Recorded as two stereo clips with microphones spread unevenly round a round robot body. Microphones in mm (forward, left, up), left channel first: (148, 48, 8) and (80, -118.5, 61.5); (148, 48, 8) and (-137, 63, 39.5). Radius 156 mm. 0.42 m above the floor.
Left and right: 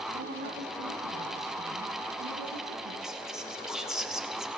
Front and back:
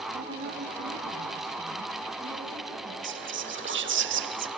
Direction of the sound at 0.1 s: 125° right.